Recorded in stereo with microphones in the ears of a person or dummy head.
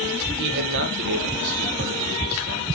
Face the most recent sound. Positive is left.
turn(degrees=-60)  # may be behind; listen again after turning